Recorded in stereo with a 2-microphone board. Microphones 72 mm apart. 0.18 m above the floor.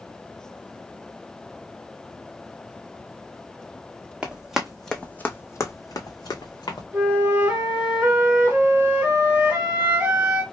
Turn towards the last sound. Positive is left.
turn(degrees=-20)  # may be behind; listen again after turning